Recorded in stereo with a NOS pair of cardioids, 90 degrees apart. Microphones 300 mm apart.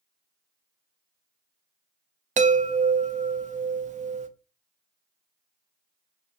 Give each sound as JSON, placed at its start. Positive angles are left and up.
{"t": 2.4, "sound": "a chime", "azimuth_deg": -25, "distance_m": 0.6}